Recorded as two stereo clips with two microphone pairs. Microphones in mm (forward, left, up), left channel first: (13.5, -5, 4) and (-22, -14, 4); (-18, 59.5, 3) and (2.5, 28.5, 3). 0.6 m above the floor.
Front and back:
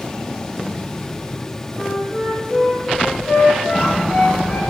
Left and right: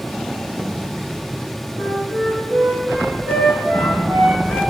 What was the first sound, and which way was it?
A flute, 25° right.